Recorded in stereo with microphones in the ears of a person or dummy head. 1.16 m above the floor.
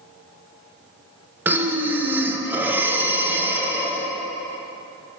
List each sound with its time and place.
1.4 s breathing: 10° right (ahead or behind), 0.6 m